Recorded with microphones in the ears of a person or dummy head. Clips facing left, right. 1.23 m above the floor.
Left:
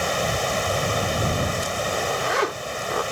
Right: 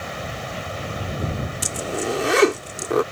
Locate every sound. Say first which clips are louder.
0.0 s running water: left 7 dB; 65° left (ahead or behind)
1.6 s a zipper: even; 50° right (ahead or behind)